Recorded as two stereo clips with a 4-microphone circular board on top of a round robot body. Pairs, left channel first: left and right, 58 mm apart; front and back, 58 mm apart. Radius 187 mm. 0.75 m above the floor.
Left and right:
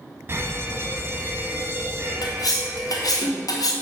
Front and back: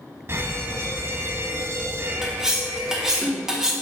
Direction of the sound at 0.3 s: 140° right.